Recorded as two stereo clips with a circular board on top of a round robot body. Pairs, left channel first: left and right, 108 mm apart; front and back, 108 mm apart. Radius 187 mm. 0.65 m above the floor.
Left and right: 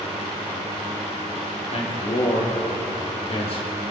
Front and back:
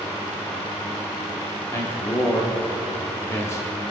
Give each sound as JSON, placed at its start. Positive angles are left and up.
{"t": 1.7, "sound": "a man speaking", "azimuth_deg": 65, "distance_m": 2.5}